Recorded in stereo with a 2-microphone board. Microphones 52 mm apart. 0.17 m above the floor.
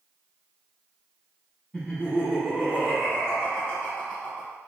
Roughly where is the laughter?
Centre.